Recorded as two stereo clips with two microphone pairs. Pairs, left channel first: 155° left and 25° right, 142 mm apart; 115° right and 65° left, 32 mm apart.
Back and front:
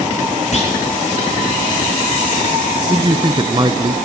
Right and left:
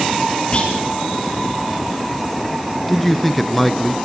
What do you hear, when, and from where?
0.5 s a clunk: 170° right, 5 m
2.9 s a man speaking: 25° right, 1.3 m